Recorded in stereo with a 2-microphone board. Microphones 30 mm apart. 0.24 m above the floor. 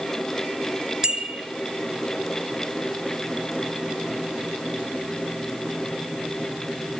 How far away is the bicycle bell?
About 3.5 m.